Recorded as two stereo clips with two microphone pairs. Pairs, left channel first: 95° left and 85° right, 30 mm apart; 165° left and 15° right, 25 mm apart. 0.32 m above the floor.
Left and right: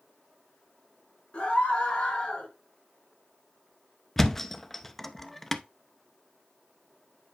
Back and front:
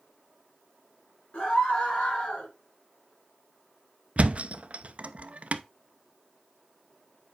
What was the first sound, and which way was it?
A scream, 145° left.